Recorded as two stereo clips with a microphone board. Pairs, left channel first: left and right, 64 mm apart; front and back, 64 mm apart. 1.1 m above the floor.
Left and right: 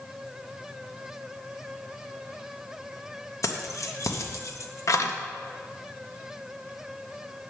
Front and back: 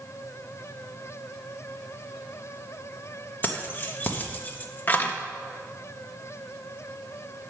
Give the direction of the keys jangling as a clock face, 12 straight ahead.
10 o'clock.